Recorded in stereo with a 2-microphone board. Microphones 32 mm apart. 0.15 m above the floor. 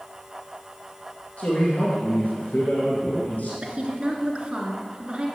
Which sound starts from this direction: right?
A woman speaking, at 3.6 s.